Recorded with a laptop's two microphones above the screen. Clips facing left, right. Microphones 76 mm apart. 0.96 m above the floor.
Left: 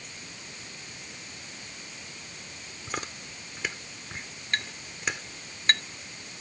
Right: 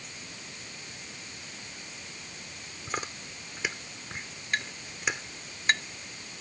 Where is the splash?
I don't hear a splash.